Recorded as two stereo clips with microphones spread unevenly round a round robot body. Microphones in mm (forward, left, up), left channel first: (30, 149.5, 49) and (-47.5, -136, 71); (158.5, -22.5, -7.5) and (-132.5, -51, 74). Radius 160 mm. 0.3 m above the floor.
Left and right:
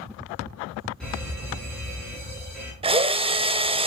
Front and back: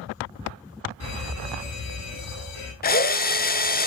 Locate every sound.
1.0 s a fire alarm: 10° right, 6 m
2.8 s a drill: 35° right, 1.1 m